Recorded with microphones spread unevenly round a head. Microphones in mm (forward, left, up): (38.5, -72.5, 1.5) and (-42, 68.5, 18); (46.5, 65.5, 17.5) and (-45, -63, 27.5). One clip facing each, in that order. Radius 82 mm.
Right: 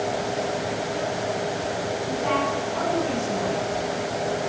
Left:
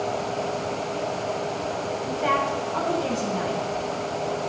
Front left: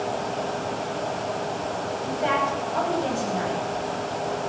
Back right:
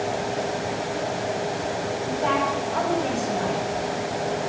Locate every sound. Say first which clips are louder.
2.0 s a woman speaking: even, back right 1 dB; 120° left, 7.5 m